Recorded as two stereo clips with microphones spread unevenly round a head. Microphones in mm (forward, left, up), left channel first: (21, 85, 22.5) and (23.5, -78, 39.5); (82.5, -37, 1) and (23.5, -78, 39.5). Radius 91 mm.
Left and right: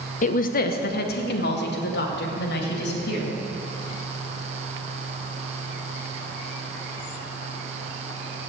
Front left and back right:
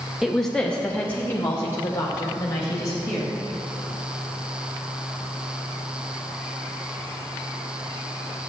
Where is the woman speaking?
105° left, 0.7 m; by 3.3 s 90° left, 2.5 m.